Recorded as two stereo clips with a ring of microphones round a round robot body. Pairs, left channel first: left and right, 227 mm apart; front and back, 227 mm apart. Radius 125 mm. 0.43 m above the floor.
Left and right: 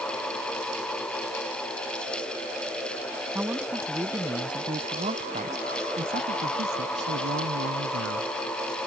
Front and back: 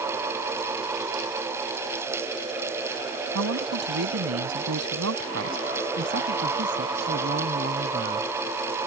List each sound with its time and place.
3.4 s a man speaking: 175° right; by 8.3 s 125° right